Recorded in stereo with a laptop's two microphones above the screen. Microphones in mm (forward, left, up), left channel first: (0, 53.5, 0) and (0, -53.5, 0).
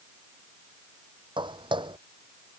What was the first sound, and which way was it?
Footsteps, 50° right (ahead or behind).